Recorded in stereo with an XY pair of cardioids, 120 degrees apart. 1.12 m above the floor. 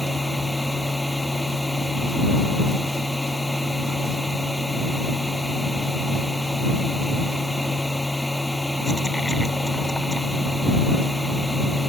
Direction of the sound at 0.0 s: 10° left.